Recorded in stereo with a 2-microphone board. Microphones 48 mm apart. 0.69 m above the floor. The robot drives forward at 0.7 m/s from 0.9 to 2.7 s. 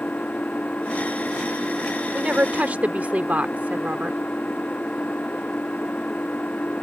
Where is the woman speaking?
30° right (ahead or behind); by 4.2 s 35° right (ahead or behind).